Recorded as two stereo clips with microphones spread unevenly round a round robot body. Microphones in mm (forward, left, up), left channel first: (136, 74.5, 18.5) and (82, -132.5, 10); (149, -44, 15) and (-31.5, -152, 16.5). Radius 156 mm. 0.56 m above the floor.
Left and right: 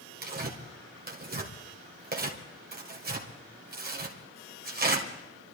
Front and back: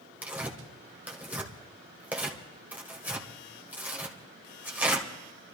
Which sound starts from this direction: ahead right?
Tearing paper, at 0.2 s.